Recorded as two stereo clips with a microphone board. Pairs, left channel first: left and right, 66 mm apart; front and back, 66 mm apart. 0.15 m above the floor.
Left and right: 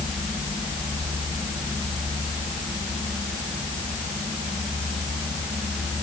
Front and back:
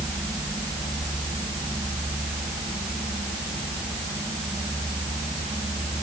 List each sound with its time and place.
Only background noise.